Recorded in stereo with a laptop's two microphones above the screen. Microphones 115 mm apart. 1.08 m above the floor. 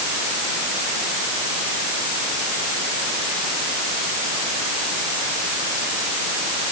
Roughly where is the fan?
I don't hear a fan.